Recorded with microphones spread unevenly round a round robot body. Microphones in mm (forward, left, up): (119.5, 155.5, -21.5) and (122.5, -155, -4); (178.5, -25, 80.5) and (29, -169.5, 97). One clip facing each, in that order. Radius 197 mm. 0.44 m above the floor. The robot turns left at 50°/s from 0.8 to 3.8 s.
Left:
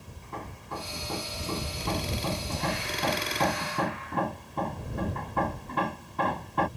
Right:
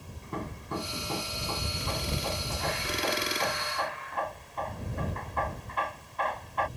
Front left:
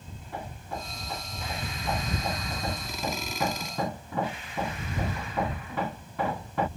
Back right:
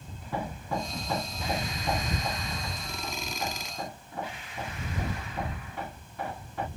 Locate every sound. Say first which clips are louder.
0.2 s hammering: right 5 dB, back right 6 dB; 160° right; by 6.7 s 50° left